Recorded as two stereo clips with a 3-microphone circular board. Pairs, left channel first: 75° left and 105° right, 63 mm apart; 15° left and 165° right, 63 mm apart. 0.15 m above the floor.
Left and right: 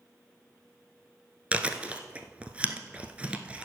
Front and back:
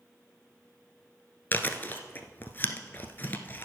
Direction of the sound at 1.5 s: 35° right.